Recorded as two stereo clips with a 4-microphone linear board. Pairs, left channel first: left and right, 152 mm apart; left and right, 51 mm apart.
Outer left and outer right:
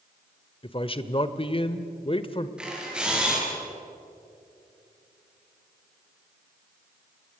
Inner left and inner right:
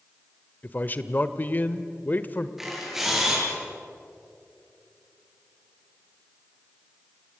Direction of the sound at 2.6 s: 5° right (ahead or behind).